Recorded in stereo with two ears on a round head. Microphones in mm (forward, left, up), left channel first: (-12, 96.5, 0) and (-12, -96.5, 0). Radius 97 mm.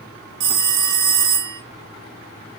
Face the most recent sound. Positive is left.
turn(degrees=-60)  # may be behind; listen again after turning